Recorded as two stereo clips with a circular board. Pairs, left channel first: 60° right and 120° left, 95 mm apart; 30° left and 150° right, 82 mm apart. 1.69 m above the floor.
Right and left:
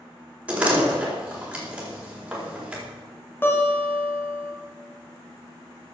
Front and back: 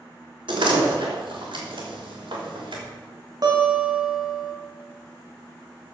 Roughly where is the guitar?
Behind right.